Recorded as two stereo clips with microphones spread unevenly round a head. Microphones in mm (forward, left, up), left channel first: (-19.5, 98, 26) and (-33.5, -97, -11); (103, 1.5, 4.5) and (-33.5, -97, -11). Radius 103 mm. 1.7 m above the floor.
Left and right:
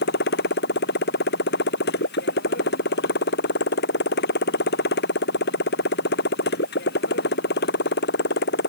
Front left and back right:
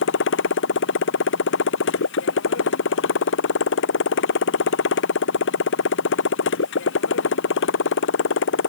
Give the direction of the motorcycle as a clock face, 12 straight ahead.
11 o'clock.